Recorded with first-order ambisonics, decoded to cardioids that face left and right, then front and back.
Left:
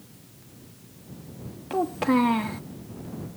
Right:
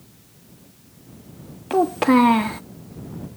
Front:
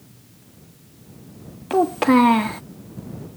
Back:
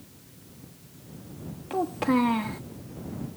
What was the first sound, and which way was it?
A child speaking, 40° right.